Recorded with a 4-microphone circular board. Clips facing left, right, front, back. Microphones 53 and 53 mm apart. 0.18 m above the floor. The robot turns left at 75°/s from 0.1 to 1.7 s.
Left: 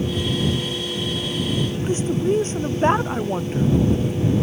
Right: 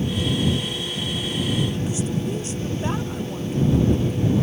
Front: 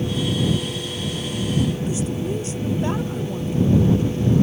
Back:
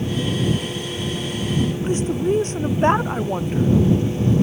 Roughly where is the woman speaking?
Behind left.